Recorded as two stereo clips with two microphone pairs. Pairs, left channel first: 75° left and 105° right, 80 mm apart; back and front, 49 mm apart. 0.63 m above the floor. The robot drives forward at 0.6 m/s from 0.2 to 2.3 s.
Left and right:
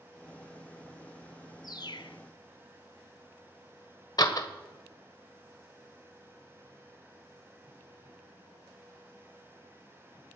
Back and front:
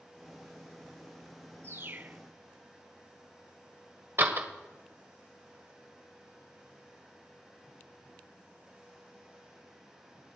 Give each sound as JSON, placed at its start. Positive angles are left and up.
{"t": 1.6, "sound": "a bird", "azimuth_deg": 40, "distance_m": 0.7}
{"t": 4.2, "sound": "a door slam", "azimuth_deg": 40, "distance_m": 1.5}